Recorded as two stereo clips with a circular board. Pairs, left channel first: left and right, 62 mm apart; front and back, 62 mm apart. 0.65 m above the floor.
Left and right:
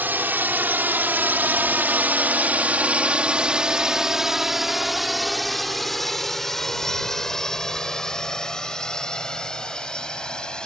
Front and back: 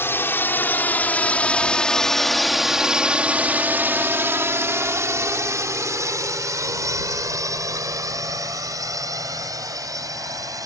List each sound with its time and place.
0.0 s a drone: 40° right; by 10.7 s 165° left